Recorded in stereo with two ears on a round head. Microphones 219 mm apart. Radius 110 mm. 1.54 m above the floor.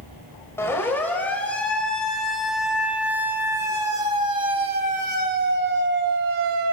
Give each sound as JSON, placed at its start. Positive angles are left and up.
{"t": 0.6, "sound": "a siren", "side_deg": 10, "distance_m": 6.0}